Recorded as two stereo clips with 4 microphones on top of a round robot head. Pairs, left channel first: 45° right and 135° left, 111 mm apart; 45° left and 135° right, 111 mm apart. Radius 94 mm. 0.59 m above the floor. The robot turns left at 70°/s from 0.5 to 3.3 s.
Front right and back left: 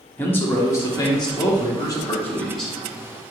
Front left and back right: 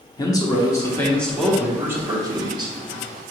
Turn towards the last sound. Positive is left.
turn(degrees=-175)